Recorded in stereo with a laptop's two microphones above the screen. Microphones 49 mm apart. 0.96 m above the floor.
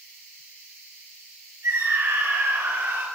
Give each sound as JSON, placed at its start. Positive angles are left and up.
{"t": 1.6, "sound": "a scream", "side_deg": -85, "distance_m": 4.5}